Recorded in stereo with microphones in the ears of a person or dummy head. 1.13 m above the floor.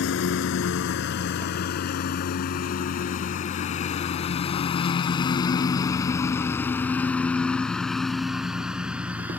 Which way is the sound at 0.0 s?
70° left (ahead or behind).